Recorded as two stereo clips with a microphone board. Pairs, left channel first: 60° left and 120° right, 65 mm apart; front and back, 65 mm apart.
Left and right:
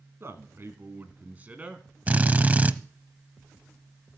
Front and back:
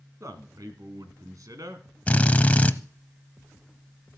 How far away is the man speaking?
About 2 m.